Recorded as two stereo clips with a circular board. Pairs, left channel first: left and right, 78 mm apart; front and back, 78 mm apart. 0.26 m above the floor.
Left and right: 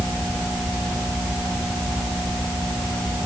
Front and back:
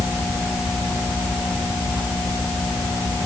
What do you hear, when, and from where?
Only background noise.